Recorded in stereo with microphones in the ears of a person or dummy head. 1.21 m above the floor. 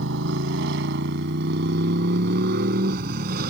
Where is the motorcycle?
70° right (ahead or behind); by 3.5 s 50° right (ahead or behind).